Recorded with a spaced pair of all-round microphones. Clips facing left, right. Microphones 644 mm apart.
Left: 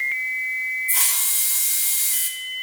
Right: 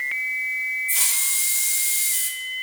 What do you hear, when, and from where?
0.9 s a hiss: 75° left (ahead or behind), 1.2 m